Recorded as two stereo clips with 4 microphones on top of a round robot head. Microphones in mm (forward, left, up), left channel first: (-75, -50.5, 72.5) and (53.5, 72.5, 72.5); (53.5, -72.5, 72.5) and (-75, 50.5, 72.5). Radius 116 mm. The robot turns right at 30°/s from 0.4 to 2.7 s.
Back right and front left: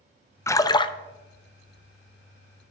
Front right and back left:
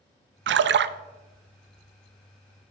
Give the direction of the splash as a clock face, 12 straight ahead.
7 o'clock.